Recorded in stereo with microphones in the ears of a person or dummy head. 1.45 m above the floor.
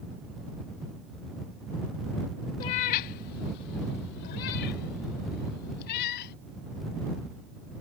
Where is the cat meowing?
25° left (ahead or behind); by 6.3 s 60° left (ahead or behind).